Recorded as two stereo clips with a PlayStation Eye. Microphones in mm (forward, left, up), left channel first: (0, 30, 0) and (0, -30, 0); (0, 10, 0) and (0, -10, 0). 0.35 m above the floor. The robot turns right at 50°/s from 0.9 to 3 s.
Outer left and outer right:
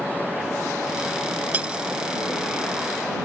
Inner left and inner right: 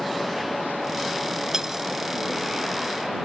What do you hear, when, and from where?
1.5 s cutlery clinking: 25° right (ahead or behind); by 1.8 s 15° right (ahead or behind)